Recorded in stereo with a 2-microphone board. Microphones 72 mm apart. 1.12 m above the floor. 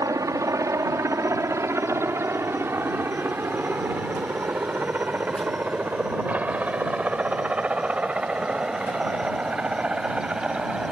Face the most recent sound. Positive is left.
turn(degrees=-15)  # may be behind; listen again after turning